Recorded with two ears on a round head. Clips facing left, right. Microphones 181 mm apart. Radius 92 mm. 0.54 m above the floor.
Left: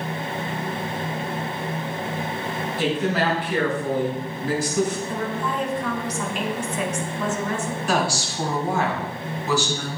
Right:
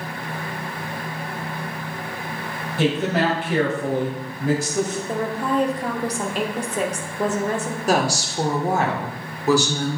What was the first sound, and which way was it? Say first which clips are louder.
A woman speaking: right 3 dB; 55° right (ahead or behind).